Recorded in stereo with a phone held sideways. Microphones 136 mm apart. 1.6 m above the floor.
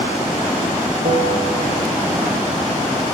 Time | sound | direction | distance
1.1 | a bell | 60° right (ahead or behind) | 3 m